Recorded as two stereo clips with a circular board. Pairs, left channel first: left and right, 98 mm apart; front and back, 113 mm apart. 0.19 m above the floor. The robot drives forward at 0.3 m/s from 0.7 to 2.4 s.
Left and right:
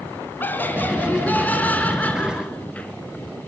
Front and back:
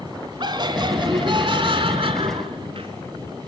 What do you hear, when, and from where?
0.4 s laughter: 150° left, 1.5 m; by 2.9 s 160° left, 1.8 m